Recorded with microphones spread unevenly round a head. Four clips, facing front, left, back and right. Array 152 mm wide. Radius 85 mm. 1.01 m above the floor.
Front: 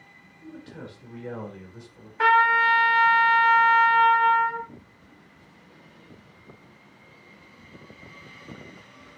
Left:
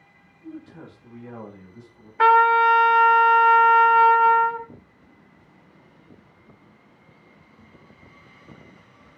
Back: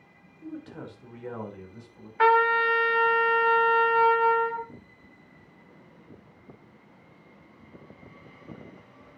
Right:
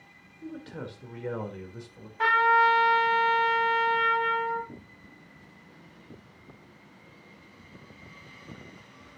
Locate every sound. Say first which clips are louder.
0.4 s a man speaking: right 1 dB, back 2 dB; 105° right, 4 m; by 2.1 s 75° right, 4 m
2.2 s a trumpet: left 6 dB, front 1 dB; 85° left, 1.9 m